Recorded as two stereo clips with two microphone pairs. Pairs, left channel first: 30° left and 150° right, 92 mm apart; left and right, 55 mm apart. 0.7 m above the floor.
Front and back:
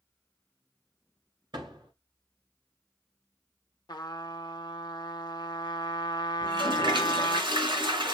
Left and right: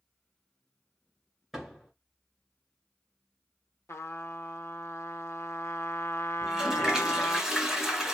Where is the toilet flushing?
175° right, 2 m.